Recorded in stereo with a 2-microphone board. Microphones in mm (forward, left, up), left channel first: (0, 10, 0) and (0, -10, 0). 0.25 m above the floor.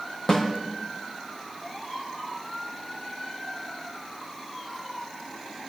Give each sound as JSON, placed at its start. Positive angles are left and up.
{"t": 0.3, "sound": "a snare drum", "side_deg": 20, "distance_m": 5.5}